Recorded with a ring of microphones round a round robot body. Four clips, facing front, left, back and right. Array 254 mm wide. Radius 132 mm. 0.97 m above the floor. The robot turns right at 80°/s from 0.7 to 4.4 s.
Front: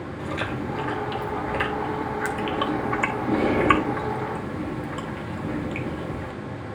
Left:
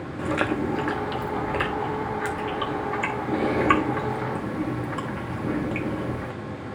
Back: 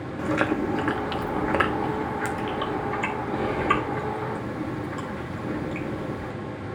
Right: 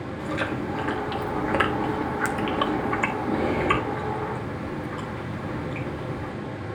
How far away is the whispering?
I don't hear whispering.